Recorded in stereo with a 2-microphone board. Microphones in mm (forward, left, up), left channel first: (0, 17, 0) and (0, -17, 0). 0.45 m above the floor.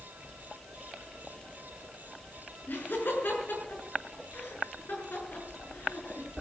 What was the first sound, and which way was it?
Laughter, 70° left (ahead or behind).